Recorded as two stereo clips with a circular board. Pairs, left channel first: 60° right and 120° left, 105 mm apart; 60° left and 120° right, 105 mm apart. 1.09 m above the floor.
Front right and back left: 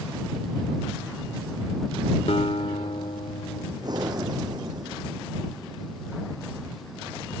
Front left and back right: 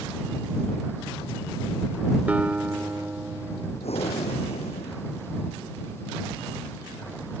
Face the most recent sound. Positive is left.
turn(degrees=70)